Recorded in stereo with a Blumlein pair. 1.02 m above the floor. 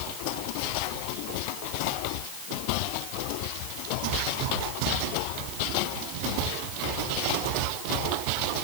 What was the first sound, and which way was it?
Only background noise.